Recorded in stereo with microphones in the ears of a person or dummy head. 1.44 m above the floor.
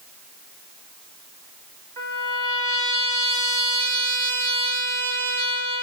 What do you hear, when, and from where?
2.0 s a trumpet: 30° right (ahead or behind), 1.5 m